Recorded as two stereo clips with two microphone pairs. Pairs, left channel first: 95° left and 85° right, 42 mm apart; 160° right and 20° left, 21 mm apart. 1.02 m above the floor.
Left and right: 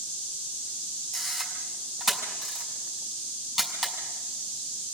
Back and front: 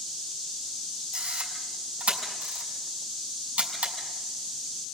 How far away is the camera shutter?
About 7 m.